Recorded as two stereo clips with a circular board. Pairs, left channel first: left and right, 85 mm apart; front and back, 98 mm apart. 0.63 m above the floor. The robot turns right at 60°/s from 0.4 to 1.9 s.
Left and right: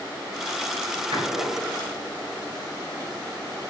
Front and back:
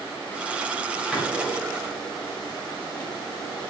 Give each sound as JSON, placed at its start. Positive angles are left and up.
{"t": 1.1, "sound": "a door slam", "azimuth_deg": -90, "distance_m": 1.7}